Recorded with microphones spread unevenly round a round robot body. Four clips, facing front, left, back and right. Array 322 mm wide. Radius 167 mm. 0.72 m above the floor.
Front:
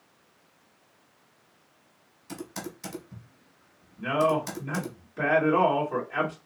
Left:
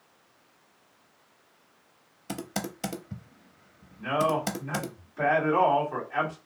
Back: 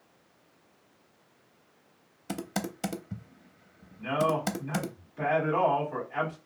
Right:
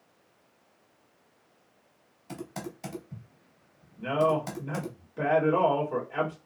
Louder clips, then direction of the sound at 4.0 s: Right 1 dB, front 3 dB; 45° right.